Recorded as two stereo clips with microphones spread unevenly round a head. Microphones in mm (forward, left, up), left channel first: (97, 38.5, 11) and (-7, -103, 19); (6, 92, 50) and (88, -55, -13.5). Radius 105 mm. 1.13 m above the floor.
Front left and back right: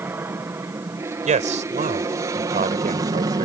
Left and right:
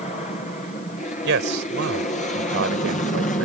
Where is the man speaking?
80° right.